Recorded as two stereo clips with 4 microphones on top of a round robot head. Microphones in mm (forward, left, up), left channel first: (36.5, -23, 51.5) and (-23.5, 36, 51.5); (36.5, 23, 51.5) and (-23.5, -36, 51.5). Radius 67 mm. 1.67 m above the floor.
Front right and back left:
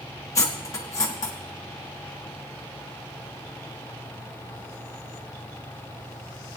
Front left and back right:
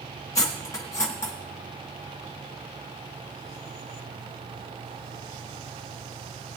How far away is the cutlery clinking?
About 1.1 m.